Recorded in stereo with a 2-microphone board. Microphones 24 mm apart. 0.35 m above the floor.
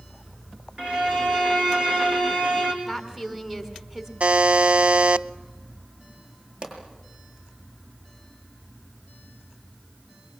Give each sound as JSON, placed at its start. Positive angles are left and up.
{"t": 0.8, "sound": "a violin", "side_deg": -45, "distance_m": 3.5}
{"t": 2.8, "sound": "a woman speaking", "side_deg": -10, "distance_m": 4.0}
{"t": 4.2, "sound": "a buzzer", "side_deg": -60, "distance_m": 0.5}
{"t": 6.6, "sound": "a pop", "side_deg": -35, "distance_m": 7.5}